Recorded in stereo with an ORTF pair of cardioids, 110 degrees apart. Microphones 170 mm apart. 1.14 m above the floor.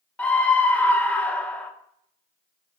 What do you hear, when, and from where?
0.2 s a scream: 10° left, 0.5 m